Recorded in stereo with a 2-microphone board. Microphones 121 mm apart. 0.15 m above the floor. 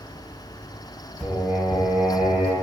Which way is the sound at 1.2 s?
Centre (ahead or behind).